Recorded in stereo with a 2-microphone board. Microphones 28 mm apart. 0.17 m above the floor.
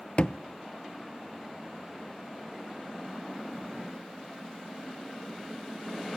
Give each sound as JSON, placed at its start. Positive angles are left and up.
{"t": 0.2, "sound": "a thud", "side_deg": 50, "distance_m": 0.8}